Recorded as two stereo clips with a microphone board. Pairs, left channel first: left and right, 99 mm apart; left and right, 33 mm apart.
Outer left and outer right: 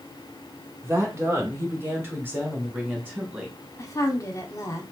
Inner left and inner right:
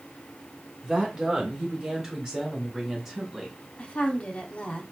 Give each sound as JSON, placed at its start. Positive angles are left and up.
{"t": 0.8, "sound": "a woman speaking", "side_deg": -30, "distance_m": 1.2}
{"t": 3.8, "sound": "a woman speaking", "side_deg": 35, "distance_m": 0.9}